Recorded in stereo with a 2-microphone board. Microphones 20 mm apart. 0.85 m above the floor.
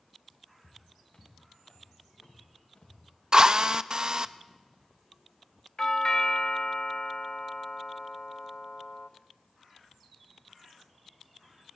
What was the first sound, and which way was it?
Footsteps, 55° left (ahead or behind).